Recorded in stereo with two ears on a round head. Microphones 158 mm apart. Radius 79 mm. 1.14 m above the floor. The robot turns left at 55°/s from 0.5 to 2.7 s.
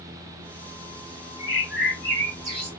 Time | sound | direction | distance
1.4 | a bird | 80° right | 3 m